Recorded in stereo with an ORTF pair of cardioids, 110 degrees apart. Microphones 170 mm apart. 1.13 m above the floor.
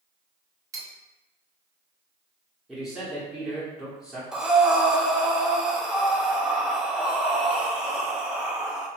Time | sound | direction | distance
0.7 | cutlery clinking | 20° right | 0.8 m
2.7 | a man speaking | straight ahead | 0.8 m
4.3 | breathing | 5° right | 0.5 m